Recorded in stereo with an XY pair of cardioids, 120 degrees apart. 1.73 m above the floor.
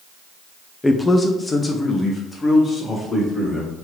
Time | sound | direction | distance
0.8 | a man speaking | 15° left | 0.6 m